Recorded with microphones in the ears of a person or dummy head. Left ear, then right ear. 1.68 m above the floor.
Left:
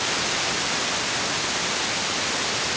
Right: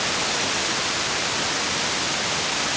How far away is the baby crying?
No baby crying in this recording.